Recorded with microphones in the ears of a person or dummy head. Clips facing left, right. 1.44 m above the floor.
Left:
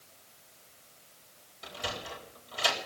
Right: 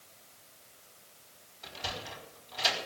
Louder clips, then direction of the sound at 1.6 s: Left 2 dB; 50° left (ahead or behind).